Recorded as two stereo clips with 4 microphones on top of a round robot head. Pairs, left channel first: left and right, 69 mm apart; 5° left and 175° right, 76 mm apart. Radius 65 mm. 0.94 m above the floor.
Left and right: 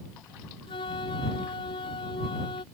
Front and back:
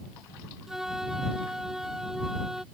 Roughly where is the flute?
Left.